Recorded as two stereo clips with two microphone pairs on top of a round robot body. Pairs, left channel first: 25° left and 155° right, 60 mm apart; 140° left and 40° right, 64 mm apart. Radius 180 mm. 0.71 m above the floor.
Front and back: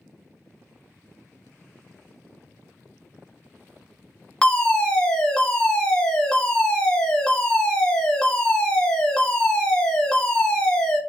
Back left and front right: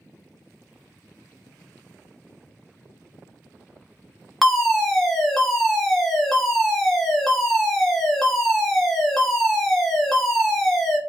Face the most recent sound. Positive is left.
turn(degrees=55)